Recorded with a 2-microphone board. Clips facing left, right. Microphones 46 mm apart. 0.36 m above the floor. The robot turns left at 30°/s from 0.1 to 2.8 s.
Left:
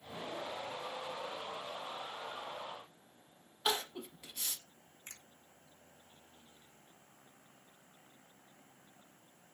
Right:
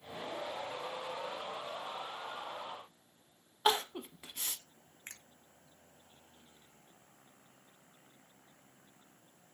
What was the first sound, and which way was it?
Crying, 35° right (ahead or behind).